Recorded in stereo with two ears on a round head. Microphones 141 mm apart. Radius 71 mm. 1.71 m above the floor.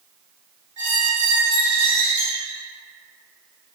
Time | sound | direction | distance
0.8 | a squeak | 30° right (ahead or behind) | 1.1 m